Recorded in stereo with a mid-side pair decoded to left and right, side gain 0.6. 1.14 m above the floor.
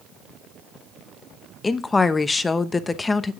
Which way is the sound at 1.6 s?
20° left.